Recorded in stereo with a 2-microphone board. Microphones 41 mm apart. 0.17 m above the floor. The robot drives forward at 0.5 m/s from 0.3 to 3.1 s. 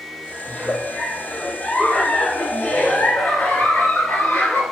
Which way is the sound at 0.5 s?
30° left (ahead or behind).